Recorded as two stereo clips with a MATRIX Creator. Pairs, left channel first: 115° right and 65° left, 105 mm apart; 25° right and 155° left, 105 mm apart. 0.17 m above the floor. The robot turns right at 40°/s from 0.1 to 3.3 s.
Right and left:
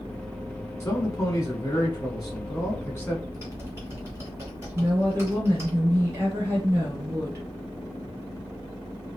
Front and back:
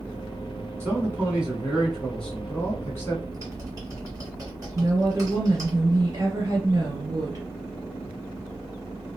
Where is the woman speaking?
115° left, 2.5 m.